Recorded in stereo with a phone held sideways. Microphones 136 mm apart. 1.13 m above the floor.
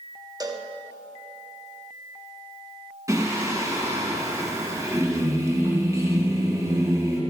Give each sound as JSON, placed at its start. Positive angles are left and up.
{"t": 0.4, "sound": "a cowbell", "side_deg": -30, "distance_m": 0.7}
{"t": 3.1, "sound": "singing", "side_deg": -25, "distance_m": 1.6}